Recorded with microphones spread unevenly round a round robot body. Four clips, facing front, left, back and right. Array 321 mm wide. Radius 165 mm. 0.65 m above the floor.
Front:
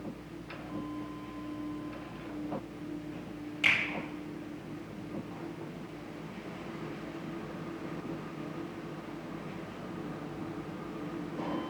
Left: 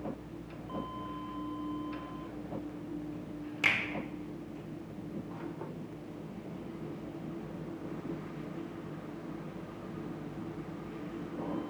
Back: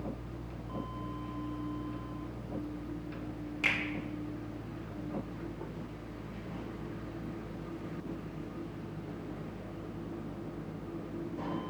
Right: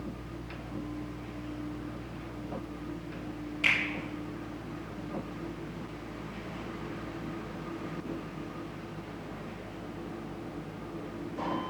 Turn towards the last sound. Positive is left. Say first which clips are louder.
# right 1 dB, front 3 dB
turn(degrees=110)